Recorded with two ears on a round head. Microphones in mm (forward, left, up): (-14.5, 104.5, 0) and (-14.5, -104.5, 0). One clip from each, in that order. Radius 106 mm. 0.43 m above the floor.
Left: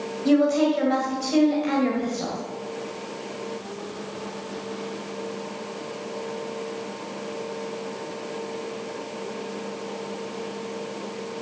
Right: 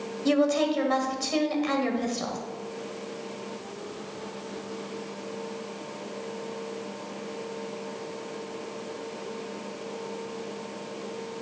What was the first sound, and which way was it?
A woman speaking, 25° right (ahead or behind).